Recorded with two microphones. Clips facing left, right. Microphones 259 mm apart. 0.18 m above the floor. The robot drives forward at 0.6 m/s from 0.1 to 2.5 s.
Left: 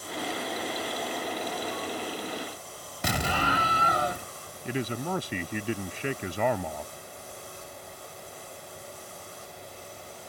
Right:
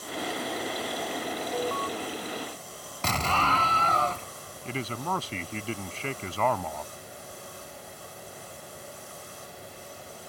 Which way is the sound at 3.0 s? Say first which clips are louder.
Left 1 dB; 15° left (ahead or behind).